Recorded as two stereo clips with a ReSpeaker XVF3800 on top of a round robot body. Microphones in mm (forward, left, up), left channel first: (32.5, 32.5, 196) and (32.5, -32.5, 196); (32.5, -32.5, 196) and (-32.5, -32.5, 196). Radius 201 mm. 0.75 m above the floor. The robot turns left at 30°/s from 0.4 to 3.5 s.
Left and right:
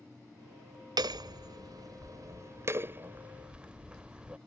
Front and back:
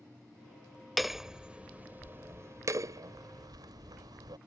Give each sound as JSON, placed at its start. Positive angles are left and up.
{"t": 1.0, "sound": "hammering", "azimuth_deg": -90}